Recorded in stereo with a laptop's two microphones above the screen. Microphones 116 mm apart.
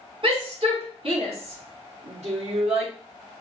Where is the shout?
50° right (ahead or behind), 2 m; by 2.9 s 75° right (ahead or behind), 3 m.